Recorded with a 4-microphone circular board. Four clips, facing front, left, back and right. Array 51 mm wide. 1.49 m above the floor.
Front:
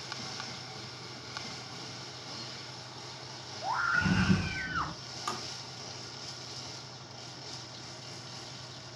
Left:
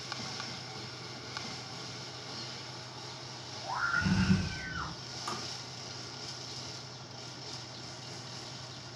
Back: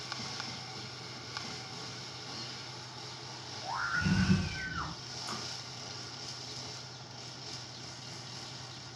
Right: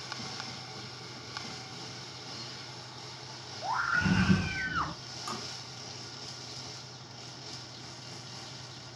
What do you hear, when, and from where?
3.6 s a scream: 45° right, 1.6 m; by 5.0 s 60° right, 0.5 m
5.3 s tapping: straight ahead, 5 m